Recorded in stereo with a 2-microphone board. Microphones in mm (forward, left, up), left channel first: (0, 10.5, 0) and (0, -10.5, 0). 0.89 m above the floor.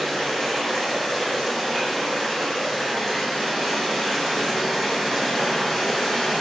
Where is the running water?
15° left (ahead or behind), 1.4 m.